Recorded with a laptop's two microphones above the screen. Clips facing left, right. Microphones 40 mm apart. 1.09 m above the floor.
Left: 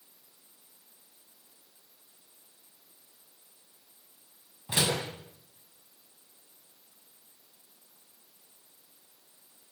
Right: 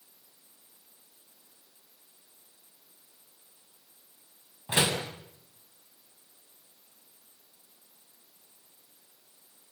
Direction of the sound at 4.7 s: 25° right (ahead or behind).